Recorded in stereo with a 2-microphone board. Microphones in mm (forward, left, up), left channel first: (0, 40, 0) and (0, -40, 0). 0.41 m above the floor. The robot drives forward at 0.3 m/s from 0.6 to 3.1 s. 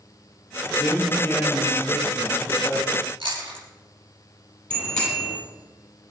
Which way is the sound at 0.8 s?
25° left (ahead or behind).